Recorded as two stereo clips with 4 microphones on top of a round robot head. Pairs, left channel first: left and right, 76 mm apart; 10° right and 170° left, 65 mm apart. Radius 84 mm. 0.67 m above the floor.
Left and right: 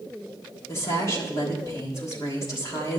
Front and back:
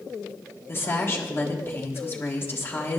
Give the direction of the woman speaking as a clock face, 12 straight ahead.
11 o'clock.